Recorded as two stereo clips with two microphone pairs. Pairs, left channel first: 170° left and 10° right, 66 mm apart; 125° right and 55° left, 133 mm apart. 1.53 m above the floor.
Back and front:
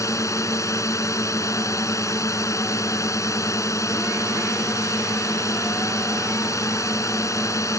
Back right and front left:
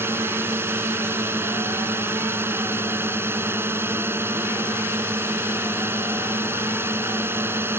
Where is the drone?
130° left.